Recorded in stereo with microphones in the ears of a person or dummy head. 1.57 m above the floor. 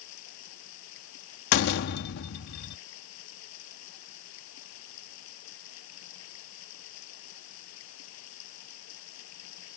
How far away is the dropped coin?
No dropped coin in this recording.